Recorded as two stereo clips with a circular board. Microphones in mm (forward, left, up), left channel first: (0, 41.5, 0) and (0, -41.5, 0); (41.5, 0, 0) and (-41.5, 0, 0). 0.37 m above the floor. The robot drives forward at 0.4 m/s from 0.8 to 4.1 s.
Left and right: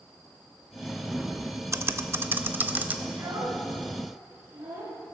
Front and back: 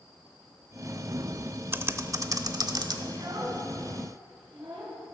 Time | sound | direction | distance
1.7 | typing on a keyboard | 130° right | 0.5 m
3.1 | a child speaking | 150° right | 3.5 m